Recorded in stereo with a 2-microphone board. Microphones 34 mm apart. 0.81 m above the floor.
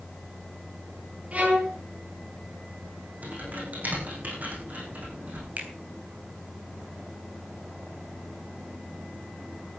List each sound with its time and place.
1.3 s a violin: 45° right (ahead or behind), 5.5 m
3.2 s typing on a keyboard: 55° right (ahead or behind), 6 m
5.6 s a finger snap: 55° right (ahead or behind), 3.5 m